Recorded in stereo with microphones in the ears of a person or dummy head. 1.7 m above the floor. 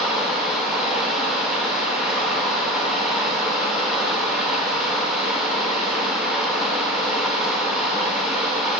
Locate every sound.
0.0 s running water: 5° right (ahead or behind), 0.7 m